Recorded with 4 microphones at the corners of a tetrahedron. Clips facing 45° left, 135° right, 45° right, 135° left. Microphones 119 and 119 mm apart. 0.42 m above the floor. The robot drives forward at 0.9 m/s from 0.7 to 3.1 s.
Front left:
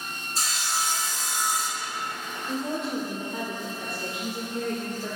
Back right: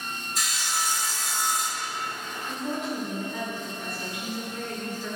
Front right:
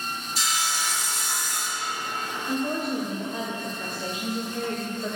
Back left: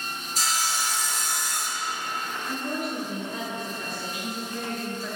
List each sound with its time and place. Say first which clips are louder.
0.3 s sawing: front left 2 dB, back left 1 dB; 100° left, 1.8 m; by 1.9 s 130° left, 2 m
2.5 s a woman speaking: front left 2 dB, front right 5 dB; straight ahead, 1.9 m